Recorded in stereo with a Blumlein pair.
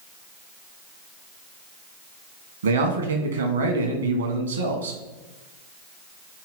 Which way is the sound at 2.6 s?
70° right.